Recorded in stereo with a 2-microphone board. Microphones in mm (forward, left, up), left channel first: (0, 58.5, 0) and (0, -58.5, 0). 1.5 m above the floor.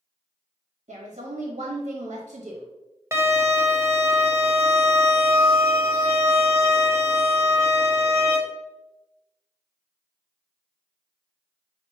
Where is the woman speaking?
75° right (ahead or behind), 1.0 m.